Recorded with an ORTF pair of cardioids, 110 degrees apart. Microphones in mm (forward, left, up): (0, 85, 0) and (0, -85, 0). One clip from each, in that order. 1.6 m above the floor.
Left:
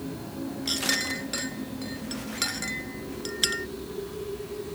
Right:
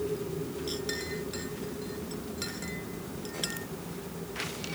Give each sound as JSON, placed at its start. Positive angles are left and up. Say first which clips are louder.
{"t": 0.7, "sound": "a clink", "louder": "left 11 dB", "azimuth_deg": 60}